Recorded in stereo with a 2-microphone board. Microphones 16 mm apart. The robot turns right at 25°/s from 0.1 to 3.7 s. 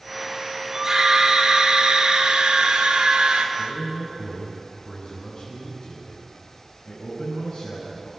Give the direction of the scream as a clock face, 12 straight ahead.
5 o'clock.